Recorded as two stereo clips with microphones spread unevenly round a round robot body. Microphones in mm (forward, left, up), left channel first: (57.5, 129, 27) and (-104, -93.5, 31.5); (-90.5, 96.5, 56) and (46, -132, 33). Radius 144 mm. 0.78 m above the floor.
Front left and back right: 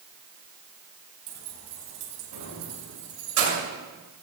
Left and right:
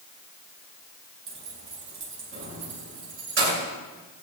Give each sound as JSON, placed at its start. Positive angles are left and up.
{"t": 1.3, "sound": "keys jangling", "azimuth_deg": -105, "distance_m": 4.0}